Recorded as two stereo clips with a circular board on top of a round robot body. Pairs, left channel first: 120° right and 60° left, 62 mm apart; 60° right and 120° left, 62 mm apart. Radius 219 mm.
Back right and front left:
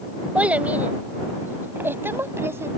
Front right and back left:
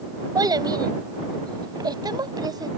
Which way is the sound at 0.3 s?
130° left.